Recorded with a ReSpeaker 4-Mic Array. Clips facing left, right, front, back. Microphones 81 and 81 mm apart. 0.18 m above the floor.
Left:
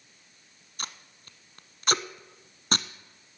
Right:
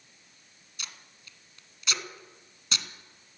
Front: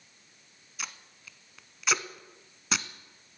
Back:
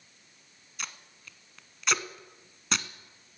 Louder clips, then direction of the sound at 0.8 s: Left 6 dB, even; 85° left.